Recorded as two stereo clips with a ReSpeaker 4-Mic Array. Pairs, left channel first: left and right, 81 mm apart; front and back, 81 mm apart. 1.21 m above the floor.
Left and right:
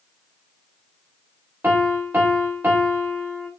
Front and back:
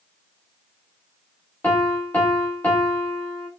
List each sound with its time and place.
1.6 s a piano: 50° right, 0.8 m